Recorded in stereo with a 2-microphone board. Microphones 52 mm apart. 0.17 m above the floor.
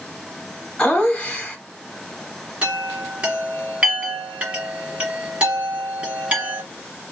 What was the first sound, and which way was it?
Laughter, 20° left (ahead or behind).